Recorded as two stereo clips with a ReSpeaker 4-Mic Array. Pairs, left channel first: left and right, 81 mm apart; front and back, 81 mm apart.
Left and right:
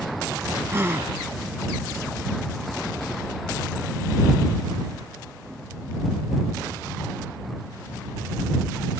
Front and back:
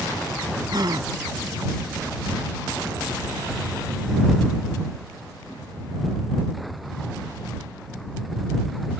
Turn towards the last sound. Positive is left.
turn(degrees=-150)